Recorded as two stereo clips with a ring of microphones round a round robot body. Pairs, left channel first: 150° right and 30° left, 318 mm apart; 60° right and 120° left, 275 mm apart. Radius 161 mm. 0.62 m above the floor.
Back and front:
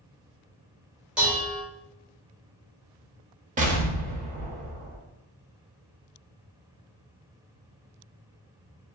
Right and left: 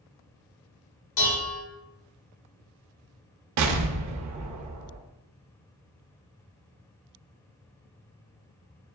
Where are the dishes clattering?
55° right, 1.7 m.